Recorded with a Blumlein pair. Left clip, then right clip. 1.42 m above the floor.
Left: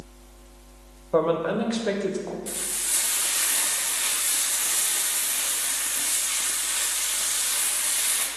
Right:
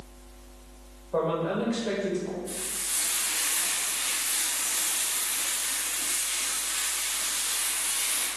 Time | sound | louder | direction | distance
1.1 | a woman speaking | left 4 dB | 65° left | 1.3 m
2.5 | frying | left 3 dB | 45° left | 1.2 m